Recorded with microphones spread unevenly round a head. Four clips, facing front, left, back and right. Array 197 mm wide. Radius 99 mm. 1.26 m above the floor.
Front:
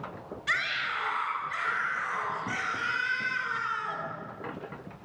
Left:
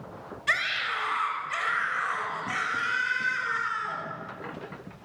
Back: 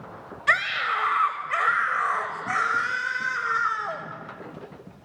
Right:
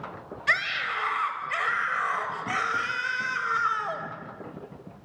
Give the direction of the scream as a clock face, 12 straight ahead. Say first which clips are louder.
Right 1 dB, back 8 dB; 6 o'clock.